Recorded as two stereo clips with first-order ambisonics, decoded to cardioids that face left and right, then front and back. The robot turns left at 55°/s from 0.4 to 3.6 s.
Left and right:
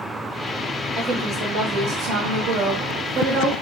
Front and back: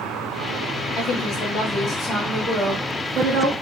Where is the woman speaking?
10° right, 1.2 m; by 3.5 s 150° right, 1.2 m.